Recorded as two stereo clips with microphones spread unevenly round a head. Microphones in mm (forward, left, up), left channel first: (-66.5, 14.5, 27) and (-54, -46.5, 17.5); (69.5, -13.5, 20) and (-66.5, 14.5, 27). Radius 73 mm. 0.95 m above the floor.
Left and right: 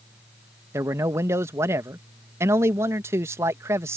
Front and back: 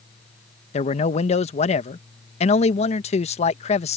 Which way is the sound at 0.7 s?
40° right.